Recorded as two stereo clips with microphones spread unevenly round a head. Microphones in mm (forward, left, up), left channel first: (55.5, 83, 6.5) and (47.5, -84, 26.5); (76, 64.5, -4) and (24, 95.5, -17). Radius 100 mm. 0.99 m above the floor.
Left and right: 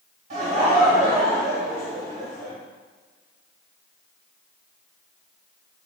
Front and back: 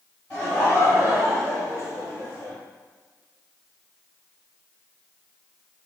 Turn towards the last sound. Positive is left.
turn(degrees=-160)